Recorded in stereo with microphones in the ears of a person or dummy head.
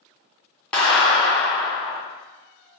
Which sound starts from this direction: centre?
A clap, at 0.7 s.